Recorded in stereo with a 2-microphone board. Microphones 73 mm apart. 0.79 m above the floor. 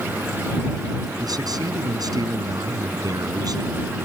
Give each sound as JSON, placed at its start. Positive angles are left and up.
{"t": 1.2, "sound": "a man speaking", "side_deg": -60}